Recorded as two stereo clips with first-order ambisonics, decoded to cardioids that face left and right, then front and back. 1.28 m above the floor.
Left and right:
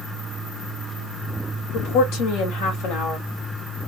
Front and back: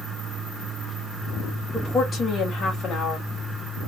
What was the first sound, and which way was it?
A woman speaking, 70° left.